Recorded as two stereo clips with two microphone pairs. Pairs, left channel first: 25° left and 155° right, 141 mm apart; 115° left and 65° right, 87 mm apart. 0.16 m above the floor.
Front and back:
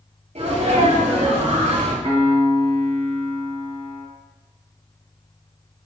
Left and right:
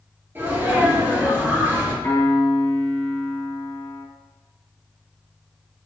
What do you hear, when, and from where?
0.3 s a sneeze: 130° right, 3 m
2.0 s a piano: 165° left, 2.5 m